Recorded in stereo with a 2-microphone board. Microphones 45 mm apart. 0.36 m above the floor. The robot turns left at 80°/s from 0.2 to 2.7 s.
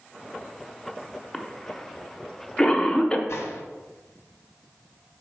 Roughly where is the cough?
Centre.